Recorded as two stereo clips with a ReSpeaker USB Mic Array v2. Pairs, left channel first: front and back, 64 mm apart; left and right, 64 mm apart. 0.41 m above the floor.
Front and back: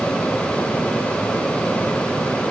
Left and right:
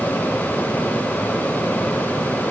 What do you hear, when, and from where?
Only background noise.